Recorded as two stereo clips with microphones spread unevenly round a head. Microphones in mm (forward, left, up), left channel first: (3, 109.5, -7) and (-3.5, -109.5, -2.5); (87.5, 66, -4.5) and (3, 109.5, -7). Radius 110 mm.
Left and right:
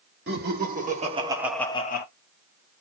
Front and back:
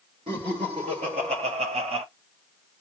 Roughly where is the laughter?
Behind right.